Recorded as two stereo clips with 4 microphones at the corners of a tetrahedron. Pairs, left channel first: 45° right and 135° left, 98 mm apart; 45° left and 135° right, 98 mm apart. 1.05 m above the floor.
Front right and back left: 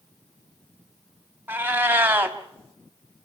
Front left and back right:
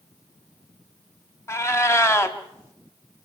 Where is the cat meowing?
80° left, 1.0 m.